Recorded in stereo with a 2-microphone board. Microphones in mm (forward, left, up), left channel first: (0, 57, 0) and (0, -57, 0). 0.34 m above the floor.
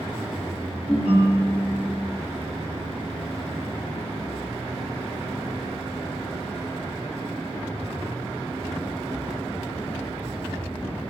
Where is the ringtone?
55° left (ahead or behind), 1.7 m.